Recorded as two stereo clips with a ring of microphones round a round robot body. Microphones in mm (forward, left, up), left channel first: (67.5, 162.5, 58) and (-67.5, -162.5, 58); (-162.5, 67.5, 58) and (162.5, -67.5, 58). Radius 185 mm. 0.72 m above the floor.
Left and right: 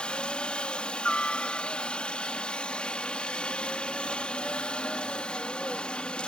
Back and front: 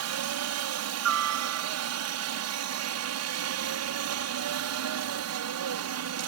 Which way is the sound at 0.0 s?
20° right.